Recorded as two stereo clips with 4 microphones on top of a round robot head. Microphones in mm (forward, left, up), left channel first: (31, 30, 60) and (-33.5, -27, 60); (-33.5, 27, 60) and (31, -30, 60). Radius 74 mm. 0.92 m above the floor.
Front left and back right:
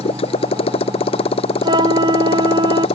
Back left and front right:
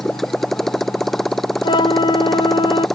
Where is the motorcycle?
50° left.